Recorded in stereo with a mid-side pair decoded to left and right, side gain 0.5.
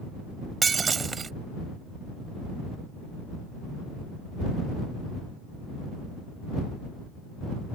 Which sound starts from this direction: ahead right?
Breaking glass, at 0.6 s.